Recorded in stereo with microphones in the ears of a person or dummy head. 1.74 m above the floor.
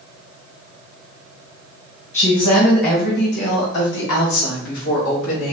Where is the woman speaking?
40° left (ahead or behind), 1.6 m; by 5.5 s 75° left (ahead or behind), 2.5 m.